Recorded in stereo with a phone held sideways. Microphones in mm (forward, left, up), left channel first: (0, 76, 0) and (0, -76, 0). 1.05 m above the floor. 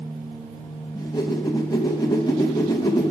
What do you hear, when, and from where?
0.9 s a whoosh: 25° left (ahead or behind), 0.8 m